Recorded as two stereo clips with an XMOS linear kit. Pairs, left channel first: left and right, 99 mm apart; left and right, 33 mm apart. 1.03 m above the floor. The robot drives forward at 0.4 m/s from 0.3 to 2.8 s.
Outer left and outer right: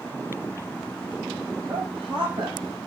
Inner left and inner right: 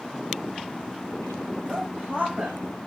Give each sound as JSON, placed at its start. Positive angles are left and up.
{"t": 1.7, "sound": "a woman speaking", "side_deg": -55, "distance_m": 6.0}